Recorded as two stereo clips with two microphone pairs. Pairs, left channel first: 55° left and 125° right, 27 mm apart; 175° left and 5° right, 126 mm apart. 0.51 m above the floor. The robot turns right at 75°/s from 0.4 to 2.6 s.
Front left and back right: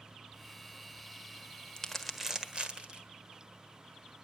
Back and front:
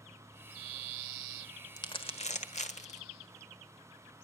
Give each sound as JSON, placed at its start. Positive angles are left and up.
{"t": 1.8, "sound": "crumpling", "azimuth_deg": 120, "distance_m": 1.4}